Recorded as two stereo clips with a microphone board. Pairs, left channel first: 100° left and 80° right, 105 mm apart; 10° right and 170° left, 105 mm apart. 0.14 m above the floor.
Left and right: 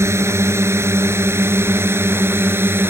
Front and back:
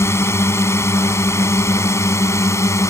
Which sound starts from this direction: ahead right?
A drone, at 0.0 s.